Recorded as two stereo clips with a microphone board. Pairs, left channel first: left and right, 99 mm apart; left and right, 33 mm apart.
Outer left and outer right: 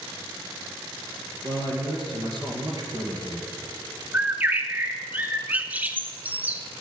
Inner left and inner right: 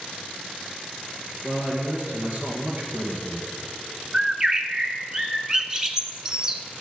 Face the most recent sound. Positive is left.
turn(degrees=-15)  # may be behind; listen again after turning